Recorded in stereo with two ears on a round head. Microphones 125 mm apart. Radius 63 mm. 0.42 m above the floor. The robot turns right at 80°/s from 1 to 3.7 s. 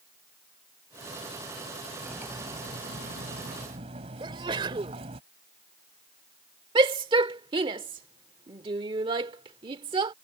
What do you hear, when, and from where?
2.0 s cutlery clinking: 175° left; by 5.2 s 45° right
4.2 s a sneeze: 35° right (ahead or behind)
6.8 s a shout: 35° right (ahead or behind)